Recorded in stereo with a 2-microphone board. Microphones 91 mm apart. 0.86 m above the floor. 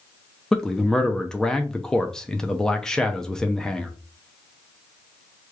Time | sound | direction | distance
0.5 | a man speaking | 10° left (ahead or behind) | 0.6 m